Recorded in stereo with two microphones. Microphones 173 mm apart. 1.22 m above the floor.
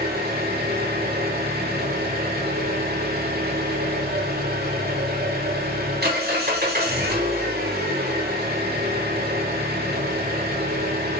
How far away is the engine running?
About 3 m.